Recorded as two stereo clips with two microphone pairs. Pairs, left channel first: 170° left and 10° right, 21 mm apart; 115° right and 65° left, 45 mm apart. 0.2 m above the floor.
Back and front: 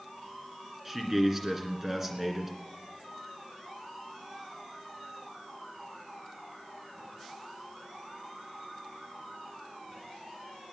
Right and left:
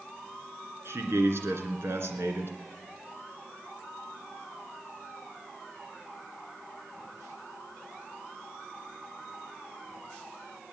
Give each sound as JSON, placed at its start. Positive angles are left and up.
{"t": 0.8, "sound": "a man speaking", "azimuth_deg": 65, "distance_m": 2.5}